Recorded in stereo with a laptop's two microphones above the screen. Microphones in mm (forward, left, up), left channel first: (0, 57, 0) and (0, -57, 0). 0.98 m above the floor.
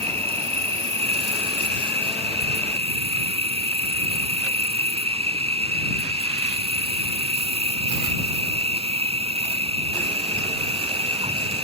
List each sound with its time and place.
0.0 s an insect: 65° right (ahead or behind)